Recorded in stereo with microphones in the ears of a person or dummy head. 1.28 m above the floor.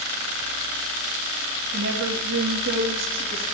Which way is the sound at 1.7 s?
70° right (ahead or behind).